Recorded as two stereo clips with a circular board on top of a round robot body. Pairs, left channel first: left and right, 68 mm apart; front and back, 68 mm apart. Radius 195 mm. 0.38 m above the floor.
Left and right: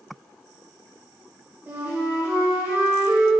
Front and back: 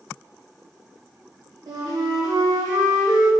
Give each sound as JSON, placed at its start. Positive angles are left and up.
{"t": 1.7, "sound": "a flute", "azimuth_deg": -155, "distance_m": 1.4}